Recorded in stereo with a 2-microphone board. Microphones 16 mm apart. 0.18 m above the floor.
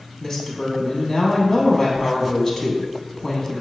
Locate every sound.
0.2 s a woman speaking: 25° left (ahead or behind), 1.0 m